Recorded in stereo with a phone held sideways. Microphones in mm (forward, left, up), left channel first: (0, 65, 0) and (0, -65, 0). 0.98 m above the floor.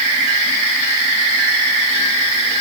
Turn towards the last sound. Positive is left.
No sound to turn to.